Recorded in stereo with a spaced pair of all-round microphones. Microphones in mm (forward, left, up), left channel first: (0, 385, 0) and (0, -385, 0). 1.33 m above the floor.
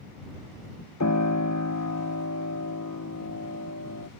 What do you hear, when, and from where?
1.0 s a piano: 25° left (ahead or behind)